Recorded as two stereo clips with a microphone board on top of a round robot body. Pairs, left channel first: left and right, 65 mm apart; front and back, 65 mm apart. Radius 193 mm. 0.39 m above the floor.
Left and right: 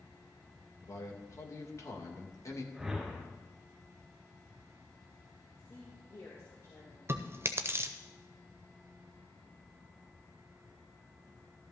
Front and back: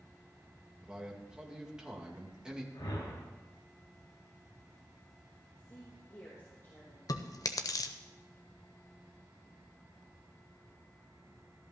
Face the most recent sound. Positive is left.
turn(degrees=-35)